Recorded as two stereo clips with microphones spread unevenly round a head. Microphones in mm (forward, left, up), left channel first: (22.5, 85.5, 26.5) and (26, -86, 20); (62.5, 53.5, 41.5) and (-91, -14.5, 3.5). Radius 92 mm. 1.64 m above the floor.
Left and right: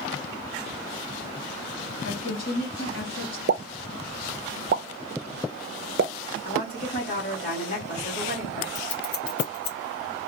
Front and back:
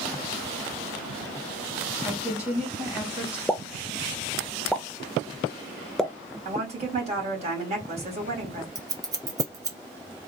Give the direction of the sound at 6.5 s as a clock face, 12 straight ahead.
7 o'clock.